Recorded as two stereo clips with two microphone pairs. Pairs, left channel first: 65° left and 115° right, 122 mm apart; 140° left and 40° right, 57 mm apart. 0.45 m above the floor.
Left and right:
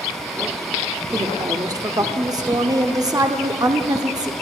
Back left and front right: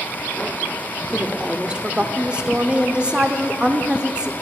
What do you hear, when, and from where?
1.1 s a woman speaking: 95° right, 0.8 m